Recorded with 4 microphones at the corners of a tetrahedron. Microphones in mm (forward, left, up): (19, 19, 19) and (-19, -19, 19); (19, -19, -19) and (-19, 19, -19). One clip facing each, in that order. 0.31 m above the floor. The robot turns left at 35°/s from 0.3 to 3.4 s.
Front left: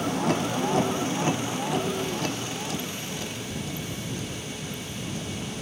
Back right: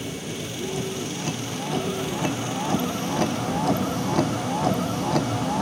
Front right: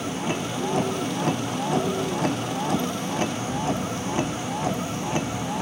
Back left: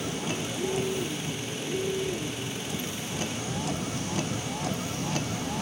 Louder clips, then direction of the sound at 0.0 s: Front left 7 dB, front right 4 dB; 15° left.